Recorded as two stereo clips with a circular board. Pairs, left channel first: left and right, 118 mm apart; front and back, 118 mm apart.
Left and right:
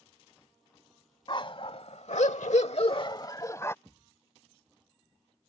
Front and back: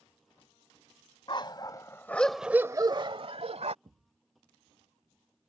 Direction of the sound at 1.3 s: 45° left.